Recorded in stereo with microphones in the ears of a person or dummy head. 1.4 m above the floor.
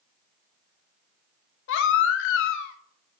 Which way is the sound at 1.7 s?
75° left (ahead or behind).